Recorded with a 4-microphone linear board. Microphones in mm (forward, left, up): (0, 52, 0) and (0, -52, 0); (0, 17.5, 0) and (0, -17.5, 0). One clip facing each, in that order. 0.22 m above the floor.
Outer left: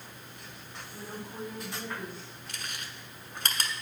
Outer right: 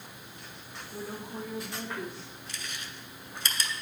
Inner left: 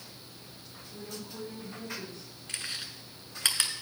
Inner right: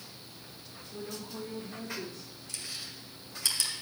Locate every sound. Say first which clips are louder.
0.9 s a woman speaking: outer right 3 dB, inner right 2 dB; 75° right (ahead or behind), 5 m
2.5 s chewing: outer left 1 dB, inner left 4 dB; 55° left (ahead or behind), 1.4 m